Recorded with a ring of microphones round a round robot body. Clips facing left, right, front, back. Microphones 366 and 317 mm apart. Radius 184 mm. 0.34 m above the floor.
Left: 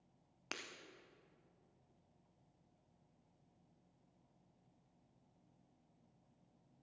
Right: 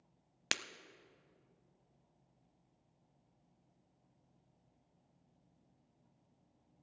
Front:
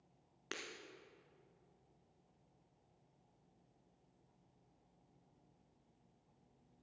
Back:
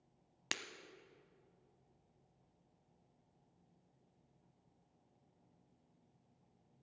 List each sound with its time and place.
0.5 s breaking glass: 135° right, 0.5 m